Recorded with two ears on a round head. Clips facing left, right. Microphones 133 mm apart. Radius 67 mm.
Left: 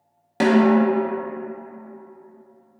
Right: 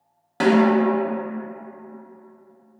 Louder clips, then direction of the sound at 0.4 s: Left 1 dB; 20° left (ahead or behind).